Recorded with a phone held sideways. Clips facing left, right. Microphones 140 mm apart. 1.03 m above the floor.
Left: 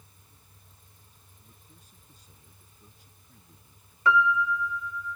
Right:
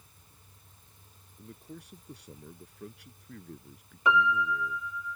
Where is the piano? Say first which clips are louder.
Left 2 dB; 20° right (ahead or behind).